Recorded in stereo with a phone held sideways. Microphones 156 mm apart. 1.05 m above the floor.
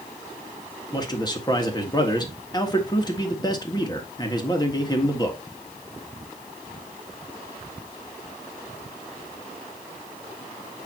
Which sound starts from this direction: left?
A man speaking, at 0.9 s.